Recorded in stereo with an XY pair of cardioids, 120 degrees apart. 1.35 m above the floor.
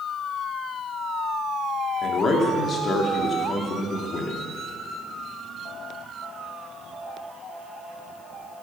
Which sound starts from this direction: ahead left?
A man speaking, at 2.0 s.